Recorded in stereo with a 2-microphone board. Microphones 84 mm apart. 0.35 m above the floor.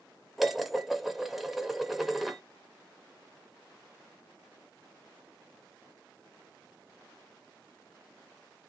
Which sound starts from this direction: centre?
Dishes clattering, at 0.4 s.